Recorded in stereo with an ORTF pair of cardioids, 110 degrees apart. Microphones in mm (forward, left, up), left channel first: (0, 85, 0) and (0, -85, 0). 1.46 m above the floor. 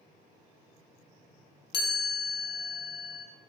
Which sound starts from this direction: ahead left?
A chime, at 1.7 s.